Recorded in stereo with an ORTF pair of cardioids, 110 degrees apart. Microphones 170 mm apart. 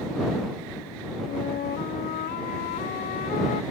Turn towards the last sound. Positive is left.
turn(degrees=65)